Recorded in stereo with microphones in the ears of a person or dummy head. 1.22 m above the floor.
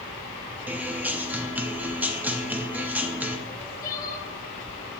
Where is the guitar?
10° right (ahead or behind), 0.5 m.